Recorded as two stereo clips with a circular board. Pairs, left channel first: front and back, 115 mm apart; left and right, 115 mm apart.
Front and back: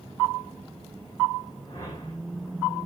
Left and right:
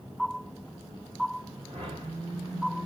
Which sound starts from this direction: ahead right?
A whoosh, at 1.7 s.